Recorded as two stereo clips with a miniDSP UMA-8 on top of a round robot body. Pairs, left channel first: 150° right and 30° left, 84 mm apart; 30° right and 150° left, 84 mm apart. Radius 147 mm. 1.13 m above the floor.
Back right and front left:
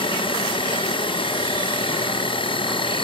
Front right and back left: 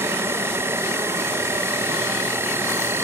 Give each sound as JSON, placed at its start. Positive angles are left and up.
{"t": 0.0, "sound": "an insect", "azimuth_deg": -150}